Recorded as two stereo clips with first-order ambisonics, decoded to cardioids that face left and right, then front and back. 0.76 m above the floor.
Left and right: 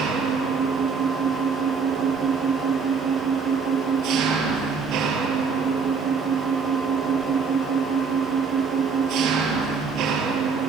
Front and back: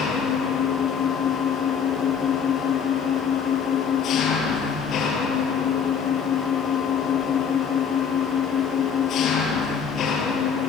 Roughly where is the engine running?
Ahead right.